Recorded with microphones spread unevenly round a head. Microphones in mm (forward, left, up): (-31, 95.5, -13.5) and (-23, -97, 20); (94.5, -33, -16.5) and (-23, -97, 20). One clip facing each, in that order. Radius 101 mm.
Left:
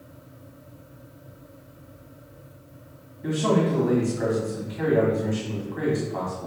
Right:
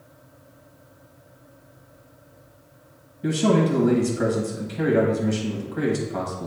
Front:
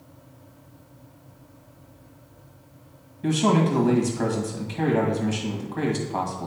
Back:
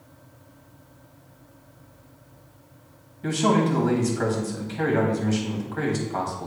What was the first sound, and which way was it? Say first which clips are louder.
A man speaking: right 2 dB, even; 45° right.